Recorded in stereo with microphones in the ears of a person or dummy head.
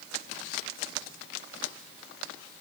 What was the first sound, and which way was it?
Only background noise.